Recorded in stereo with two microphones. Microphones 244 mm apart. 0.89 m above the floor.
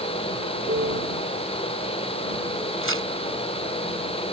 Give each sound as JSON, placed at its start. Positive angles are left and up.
{"t": 0.7, "sound": "a piano", "side_deg": -45}
{"t": 2.8, "sound": "tearing paper", "side_deg": -60}